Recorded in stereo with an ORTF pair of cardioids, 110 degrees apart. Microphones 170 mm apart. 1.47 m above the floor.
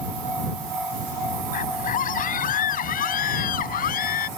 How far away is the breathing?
I don't hear breathing.